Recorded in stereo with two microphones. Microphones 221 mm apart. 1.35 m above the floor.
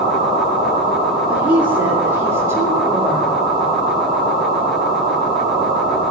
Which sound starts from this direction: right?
A woman speaking, at 1.3 s.